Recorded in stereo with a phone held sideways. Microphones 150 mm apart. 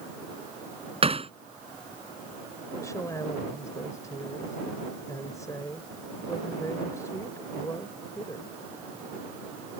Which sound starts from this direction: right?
Hammering, at 1.0 s.